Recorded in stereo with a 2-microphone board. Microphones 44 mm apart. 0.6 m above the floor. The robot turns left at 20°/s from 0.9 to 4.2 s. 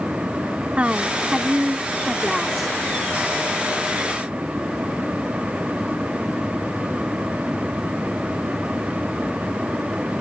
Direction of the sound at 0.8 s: 140° right.